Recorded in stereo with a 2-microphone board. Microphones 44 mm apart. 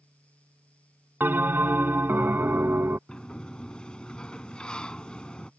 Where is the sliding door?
20° left (ahead or behind).